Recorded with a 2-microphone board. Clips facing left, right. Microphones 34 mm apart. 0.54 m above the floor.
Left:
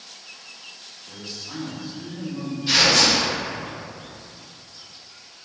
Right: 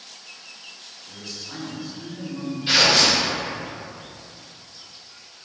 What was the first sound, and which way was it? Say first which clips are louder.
A man speaking: left 1 dB; 15° left (ahead or behind).